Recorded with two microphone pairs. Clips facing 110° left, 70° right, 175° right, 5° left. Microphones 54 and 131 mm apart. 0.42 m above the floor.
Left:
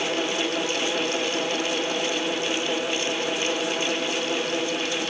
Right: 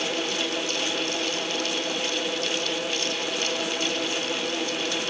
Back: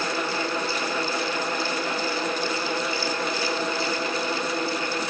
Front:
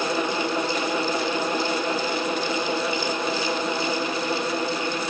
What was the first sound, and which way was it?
Only background noise.